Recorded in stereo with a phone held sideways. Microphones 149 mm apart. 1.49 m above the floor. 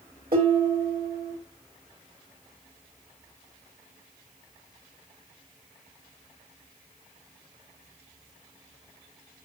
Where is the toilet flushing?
No toilet flushing in this recording.